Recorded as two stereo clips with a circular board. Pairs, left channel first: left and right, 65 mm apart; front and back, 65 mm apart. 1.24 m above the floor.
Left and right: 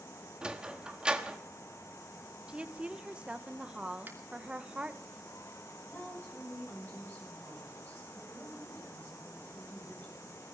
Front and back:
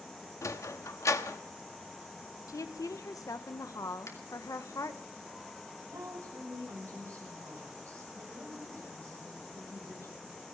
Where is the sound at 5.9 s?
145° left, 7 m.